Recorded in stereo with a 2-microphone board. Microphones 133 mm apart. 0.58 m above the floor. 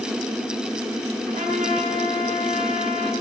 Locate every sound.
1.3 s a trumpet: 75° right (ahead or behind), 6 m